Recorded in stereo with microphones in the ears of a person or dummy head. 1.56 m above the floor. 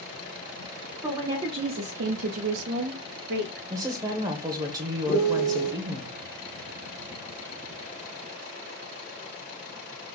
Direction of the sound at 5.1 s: 50° left (ahead or behind).